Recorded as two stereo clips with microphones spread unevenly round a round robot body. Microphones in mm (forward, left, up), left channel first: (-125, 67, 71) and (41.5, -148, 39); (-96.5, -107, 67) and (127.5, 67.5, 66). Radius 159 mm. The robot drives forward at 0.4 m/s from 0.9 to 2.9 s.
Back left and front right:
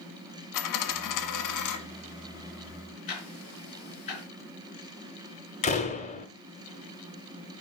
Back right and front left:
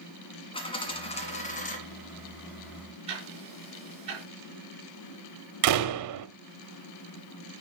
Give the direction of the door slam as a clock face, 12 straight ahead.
10 o'clock.